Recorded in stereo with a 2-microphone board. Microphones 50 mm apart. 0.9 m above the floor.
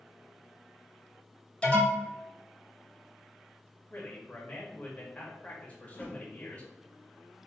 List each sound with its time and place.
1.6 s an alarm: 20° left (ahead or behind), 2.0 m
3.9 s a man speaking: 25° left (ahead or behind), 1.4 m
5.8 s a whoosh: 35° left (ahead or behind), 1.0 m